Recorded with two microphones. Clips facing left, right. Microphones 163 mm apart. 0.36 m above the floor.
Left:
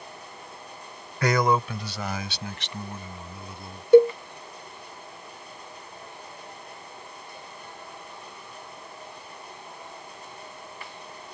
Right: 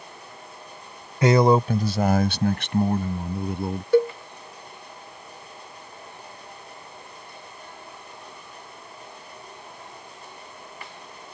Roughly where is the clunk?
No clunk in this recording.